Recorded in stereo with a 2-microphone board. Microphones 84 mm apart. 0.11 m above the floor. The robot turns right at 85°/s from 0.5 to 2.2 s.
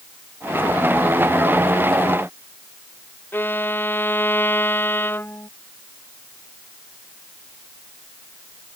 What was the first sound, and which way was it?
A violin, 25° left (ahead or behind).